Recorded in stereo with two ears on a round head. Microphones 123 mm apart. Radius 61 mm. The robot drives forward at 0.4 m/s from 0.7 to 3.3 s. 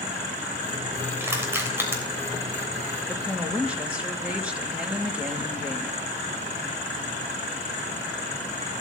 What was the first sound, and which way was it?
Crushing, 20° right (ahead or behind).